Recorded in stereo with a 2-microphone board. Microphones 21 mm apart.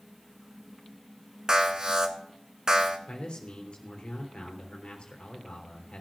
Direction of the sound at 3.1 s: 60° left (ahead or behind).